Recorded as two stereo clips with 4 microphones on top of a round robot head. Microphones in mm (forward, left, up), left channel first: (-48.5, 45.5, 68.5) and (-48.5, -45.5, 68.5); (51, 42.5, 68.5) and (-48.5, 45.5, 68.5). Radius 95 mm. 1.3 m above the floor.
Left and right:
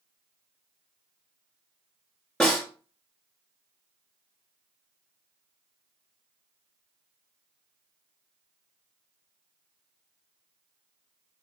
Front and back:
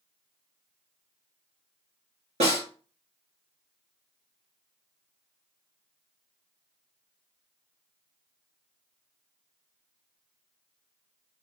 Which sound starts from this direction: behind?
A snare drum, at 2.4 s.